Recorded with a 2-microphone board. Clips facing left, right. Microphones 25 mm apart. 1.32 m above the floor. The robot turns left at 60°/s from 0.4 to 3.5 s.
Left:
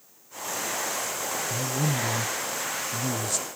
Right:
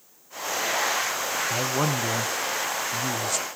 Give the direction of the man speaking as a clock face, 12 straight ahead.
2 o'clock.